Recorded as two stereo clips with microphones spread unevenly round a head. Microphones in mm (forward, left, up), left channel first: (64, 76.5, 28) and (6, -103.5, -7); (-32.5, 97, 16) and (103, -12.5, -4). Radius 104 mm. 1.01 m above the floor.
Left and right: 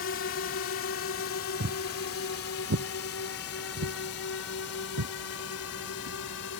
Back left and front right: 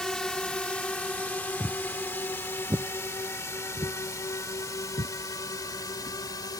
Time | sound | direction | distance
0.0 | a drone | 55° left | ?
1.6 | footsteps | 140° right | ?